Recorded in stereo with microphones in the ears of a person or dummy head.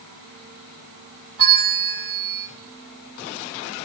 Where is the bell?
35° right (ahead or behind), 1.4 m.